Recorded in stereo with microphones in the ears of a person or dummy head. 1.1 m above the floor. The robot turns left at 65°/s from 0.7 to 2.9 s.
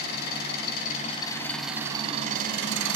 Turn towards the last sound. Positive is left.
turn(degrees=-75)